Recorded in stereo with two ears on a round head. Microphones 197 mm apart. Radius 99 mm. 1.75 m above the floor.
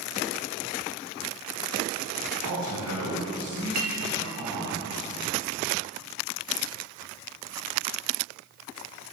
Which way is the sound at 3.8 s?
40° right (ahead or behind).